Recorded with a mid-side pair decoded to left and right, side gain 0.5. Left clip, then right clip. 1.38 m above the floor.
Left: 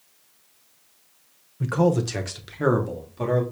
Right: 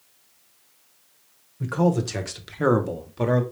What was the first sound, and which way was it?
A man speaking, 25° left.